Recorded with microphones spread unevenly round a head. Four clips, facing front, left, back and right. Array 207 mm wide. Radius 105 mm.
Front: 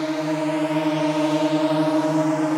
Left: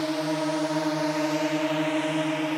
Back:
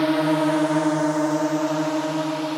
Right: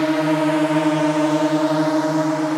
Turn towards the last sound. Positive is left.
turn(degrees=-30)